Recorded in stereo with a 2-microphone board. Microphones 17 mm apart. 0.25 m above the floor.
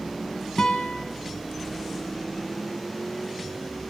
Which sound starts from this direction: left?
A guitar, at 0.6 s.